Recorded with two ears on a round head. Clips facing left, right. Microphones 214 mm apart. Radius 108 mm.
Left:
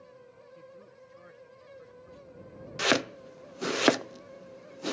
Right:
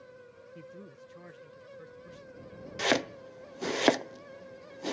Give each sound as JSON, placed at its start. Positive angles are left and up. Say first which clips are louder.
{"t": 0.6, "sound": "a man speaking", "louder": "right 4 dB", "side_deg": -55}
{"t": 2.8, "sound": "chopping", "louder": "left 1 dB", "side_deg": 5}